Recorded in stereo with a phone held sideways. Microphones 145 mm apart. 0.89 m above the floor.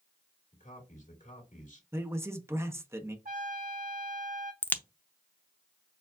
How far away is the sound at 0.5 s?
About 2.0 m.